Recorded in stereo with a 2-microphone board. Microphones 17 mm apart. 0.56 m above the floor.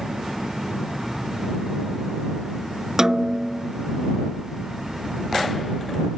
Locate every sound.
3.0 s a snare drum: 35° right (ahead or behind)